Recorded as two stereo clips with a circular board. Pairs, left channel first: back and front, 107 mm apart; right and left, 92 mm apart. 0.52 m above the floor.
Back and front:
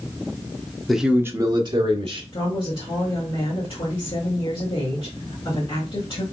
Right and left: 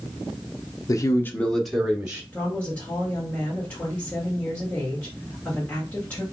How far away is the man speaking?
About 0.8 m.